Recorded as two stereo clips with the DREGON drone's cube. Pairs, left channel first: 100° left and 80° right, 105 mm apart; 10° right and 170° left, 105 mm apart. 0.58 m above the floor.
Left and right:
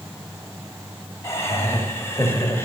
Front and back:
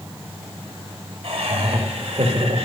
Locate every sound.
1.2 s laughter: 165° left, 2.5 m